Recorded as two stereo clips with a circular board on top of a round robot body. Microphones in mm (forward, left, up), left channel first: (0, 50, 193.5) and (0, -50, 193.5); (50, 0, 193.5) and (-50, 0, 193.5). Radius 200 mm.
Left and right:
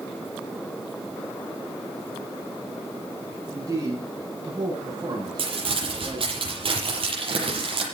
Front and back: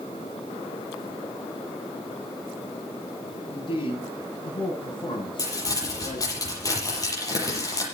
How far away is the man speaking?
About 9 m.